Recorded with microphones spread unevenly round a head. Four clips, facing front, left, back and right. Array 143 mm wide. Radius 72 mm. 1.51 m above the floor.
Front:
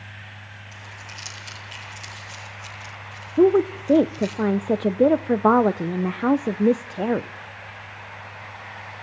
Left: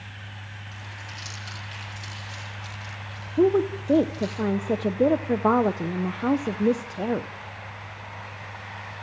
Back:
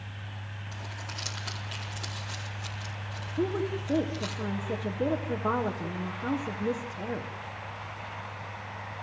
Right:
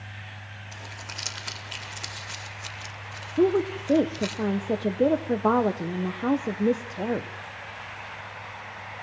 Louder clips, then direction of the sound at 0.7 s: Right 2 dB, back 1 dB; 150° right.